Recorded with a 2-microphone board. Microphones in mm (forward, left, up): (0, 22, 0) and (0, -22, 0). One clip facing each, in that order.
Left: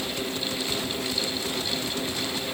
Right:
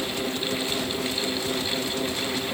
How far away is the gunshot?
No gunshot in this recording.